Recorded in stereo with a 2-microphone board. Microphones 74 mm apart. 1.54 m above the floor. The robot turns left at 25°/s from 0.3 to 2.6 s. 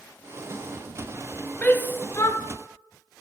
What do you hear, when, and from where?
1.6 s a shout: 20° left (ahead or behind), 0.7 m; by 2.4 s 40° left (ahead or behind), 0.7 m